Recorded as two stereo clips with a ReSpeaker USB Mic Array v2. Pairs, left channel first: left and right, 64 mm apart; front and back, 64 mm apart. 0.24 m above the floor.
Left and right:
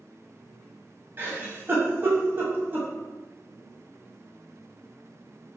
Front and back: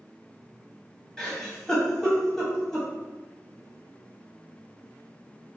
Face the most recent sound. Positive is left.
turn(degrees=-75)